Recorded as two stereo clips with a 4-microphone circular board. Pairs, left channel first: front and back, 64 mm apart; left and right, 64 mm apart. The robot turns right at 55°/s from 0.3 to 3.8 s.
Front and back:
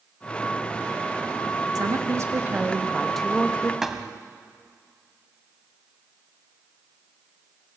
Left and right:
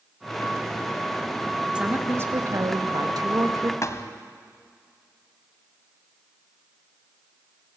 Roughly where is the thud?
Left.